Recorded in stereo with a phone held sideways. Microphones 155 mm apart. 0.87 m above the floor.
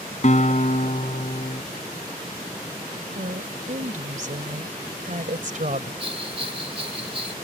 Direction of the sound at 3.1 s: 55° right (ahead or behind).